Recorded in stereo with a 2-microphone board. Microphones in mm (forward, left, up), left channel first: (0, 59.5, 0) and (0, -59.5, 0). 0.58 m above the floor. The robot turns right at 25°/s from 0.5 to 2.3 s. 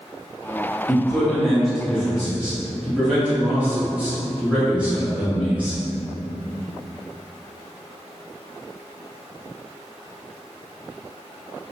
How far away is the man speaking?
About 0.9 m.